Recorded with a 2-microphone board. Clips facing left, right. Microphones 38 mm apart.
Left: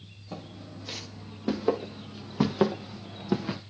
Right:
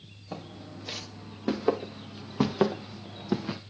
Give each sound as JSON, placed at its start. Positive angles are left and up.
{"t": 0.3, "sound": "footsteps", "side_deg": -20, "distance_m": 3.0}